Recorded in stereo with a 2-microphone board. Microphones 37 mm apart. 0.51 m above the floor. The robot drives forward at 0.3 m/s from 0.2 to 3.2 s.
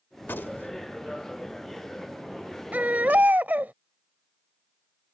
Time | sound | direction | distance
0.2 | a gunshot | 65° left (ahead or behind) | ?
2.7 | a baby crying | 50° right (ahead or behind) | ?